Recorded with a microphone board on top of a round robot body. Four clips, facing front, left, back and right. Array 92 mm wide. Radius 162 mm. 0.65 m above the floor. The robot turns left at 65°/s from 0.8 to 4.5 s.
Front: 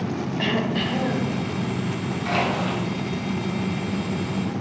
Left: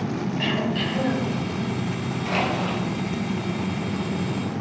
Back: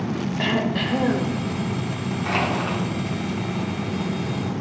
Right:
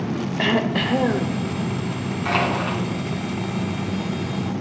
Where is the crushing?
95° right, 3.5 m; by 2.8 s 130° right, 3.5 m.